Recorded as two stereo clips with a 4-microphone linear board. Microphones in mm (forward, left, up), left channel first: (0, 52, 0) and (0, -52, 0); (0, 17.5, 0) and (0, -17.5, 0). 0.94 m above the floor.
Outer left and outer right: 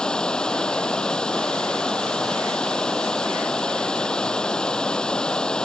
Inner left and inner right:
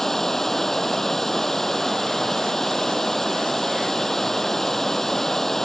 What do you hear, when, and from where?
0.0 s running water: 10° left (ahead or behind)